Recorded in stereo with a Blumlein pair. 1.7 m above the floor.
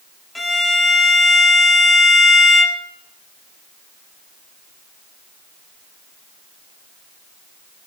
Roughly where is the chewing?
No chewing in this recording.